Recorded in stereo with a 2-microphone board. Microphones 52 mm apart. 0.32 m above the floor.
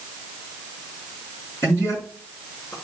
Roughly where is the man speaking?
Left.